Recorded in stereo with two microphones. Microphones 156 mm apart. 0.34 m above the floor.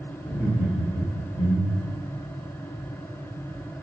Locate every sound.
0.2 s laughter: 10° right (ahead or behind), 1.3 m; by 2.0 s 40° right (ahead or behind), 1.8 m